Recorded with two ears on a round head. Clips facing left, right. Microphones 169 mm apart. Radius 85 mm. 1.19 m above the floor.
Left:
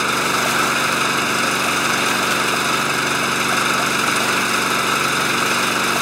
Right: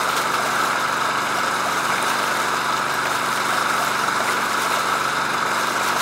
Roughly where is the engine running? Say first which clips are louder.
Left 3 dB; left.